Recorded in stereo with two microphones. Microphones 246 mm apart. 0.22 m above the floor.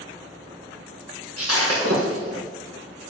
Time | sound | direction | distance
1.4 | breaking glass | 75° right (ahead or behind) | 4 m